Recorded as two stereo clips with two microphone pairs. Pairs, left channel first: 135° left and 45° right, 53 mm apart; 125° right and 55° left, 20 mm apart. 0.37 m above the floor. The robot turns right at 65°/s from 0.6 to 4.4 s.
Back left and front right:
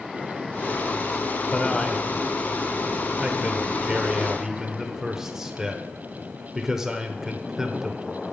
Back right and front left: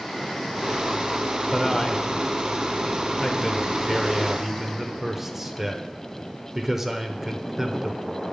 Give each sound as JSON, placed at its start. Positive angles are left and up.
{"t": 1.5, "sound": "a man speaking", "azimuth_deg": 180, "distance_m": 0.9}